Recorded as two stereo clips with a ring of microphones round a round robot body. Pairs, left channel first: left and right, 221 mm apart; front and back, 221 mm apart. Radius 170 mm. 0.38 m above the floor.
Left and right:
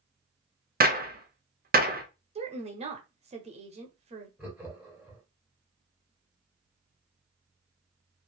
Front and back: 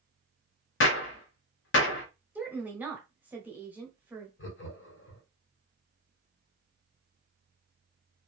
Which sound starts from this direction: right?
A woman speaking, at 2.4 s.